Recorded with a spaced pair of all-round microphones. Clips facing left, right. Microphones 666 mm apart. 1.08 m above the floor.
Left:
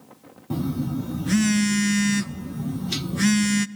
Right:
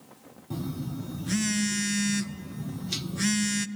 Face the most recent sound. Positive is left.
turn(degrees=80)